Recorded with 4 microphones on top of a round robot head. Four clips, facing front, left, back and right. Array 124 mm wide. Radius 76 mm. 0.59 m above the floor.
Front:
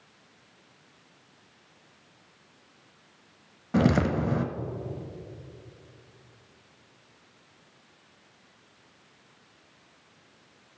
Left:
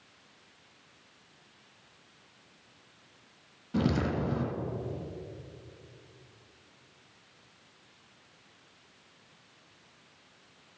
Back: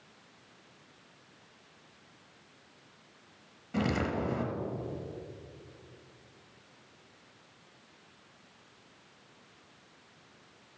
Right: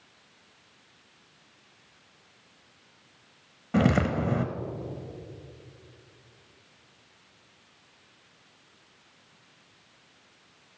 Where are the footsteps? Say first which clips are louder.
Right 5 dB, front 8 dB; 40° right, 0.7 m.